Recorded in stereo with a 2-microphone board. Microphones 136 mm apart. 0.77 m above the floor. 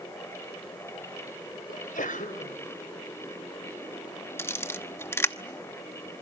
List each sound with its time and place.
1.7 s a sneeze: 80° left, 4 m
4.4 s a camera shutter: 15° left (ahead or behind), 1.0 m